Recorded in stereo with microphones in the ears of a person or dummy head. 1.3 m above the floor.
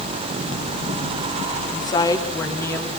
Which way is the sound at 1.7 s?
25° left (ahead or behind).